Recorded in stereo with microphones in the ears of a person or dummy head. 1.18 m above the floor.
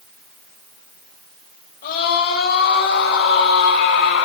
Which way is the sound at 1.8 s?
45° left (ahead or behind).